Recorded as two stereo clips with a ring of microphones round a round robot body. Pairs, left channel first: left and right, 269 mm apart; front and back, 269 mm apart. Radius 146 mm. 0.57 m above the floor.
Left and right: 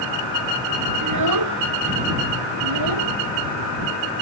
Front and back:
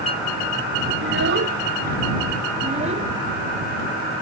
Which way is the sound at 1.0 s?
125° right.